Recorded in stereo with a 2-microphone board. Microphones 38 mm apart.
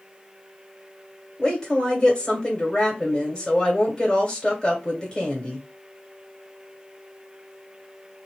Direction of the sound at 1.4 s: 20° left (ahead or behind).